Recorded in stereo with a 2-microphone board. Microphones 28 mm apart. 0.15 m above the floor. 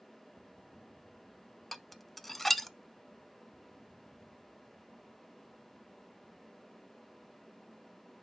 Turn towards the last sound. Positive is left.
turn(degrees=0)  # may be behind; listen again after turning